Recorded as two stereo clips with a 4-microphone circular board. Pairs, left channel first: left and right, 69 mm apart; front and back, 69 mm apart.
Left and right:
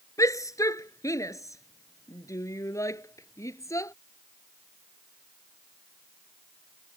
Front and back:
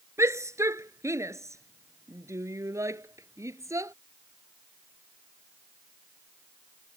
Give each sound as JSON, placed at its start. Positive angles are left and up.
{"t": 0.2, "sound": "a shout", "azimuth_deg": 130}